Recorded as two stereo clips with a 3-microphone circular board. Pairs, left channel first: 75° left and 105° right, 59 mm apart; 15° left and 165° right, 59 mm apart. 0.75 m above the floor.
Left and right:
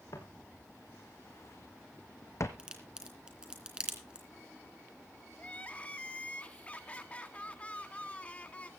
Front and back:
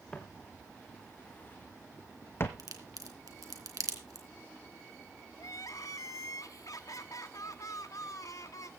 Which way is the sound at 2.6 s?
Straight behind.